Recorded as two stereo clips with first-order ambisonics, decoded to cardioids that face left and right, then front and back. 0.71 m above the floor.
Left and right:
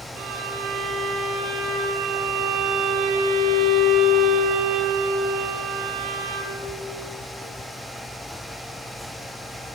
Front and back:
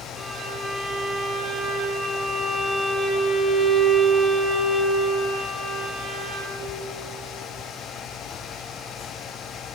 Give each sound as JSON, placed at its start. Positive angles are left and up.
{"t": 0.1, "sound": "a violin", "azimuth_deg": -100, "distance_m": 9.0}